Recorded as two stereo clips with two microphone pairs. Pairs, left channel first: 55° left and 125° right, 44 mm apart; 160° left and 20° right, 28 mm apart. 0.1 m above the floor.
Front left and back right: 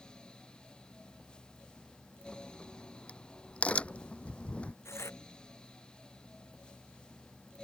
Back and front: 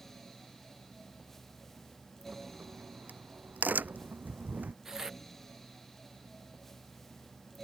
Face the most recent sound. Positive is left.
turn(degrees=55)